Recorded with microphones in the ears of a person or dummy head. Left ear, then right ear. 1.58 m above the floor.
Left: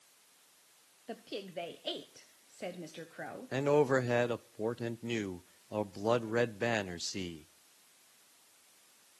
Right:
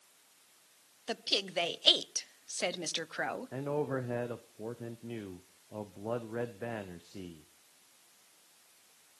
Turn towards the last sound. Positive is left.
turn(degrees=80)